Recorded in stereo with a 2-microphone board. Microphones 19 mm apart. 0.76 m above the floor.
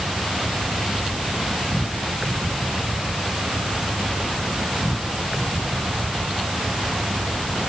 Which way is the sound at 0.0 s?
30° right (ahead or behind).